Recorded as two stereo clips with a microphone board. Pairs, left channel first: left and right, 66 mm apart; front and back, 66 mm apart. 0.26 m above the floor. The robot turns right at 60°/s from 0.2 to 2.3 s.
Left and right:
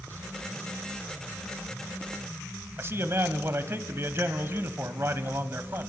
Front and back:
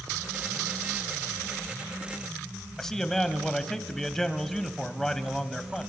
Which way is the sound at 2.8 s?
80° right.